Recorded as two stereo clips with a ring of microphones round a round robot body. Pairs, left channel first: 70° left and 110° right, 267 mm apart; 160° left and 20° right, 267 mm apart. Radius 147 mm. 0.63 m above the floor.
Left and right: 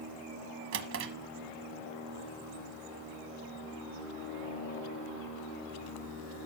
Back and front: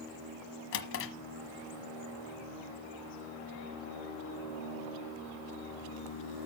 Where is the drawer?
155° right, 1.2 m.